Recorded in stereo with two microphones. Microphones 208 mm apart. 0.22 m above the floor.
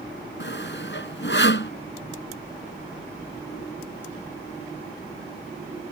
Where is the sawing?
65° left (ahead or behind).